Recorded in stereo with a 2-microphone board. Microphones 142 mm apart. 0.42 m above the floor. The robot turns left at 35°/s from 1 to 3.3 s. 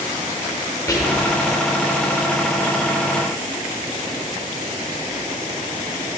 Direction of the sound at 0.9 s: 25° left (ahead or behind).